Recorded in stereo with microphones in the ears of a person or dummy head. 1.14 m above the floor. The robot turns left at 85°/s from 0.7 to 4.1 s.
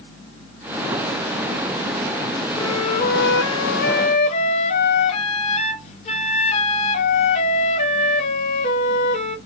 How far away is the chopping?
No chopping in this recording.